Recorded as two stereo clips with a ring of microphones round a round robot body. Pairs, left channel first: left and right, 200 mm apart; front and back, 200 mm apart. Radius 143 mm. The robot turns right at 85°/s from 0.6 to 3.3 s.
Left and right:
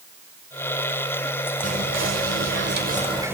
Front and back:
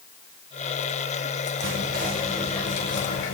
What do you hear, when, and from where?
1.6 s whispering: 155° right, 2 m; by 3.3 s 10° right, 2 m